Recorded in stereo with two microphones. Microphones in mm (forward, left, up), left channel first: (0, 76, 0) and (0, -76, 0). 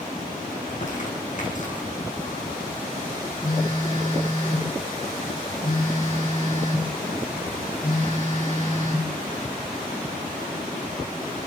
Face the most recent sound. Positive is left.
turn(degrees=60)  # may be behind; listen again after turning